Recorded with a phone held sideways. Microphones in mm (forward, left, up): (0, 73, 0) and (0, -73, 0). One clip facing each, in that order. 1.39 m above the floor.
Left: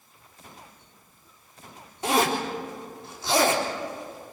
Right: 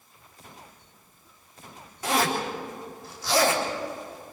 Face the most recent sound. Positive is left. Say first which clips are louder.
# left 2 dB
turn(degrees=25)  # may be behind; listen again after turning